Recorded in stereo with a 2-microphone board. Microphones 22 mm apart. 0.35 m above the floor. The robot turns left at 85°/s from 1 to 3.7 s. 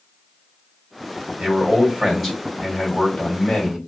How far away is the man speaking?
About 1.7 m.